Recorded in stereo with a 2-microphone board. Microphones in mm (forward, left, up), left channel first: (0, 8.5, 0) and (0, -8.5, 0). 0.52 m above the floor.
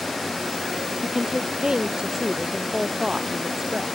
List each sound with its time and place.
1.0 s a woman speaking: 50° right (ahead or behind)